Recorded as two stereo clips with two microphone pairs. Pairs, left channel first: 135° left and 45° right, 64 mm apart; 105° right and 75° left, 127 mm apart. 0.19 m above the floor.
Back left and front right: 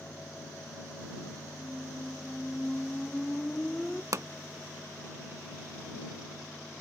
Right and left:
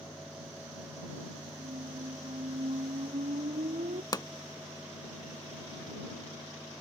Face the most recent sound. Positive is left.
turn(degrees=-55)